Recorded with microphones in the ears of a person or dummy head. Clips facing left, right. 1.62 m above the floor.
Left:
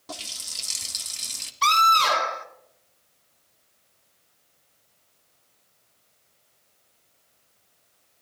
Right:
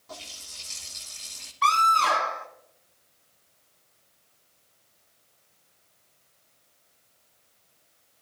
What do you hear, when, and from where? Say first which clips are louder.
0.1 s a running tap: left 4 dB; 70° left (ahead or behind), 2 m
1.6 s a scream: left 1 dB; 55° left (ahead or behind), 5.5 m